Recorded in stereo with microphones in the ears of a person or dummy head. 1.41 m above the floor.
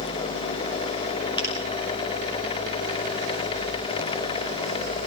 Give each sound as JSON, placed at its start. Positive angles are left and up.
{"t": 1.4, "sound": "a finger snap", "side_deg": 25, "distance_m": 6.0}